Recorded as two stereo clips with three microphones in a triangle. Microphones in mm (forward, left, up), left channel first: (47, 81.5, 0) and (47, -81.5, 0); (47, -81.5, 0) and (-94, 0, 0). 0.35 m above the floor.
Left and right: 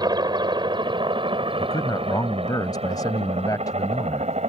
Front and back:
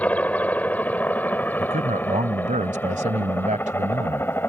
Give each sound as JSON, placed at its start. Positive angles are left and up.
{"t": 0.0, "sound": "a helicopter", "azimuth_deg": -100}
{"t": 1.6, "sound": "a man speaking", "azimuth_deg": 150}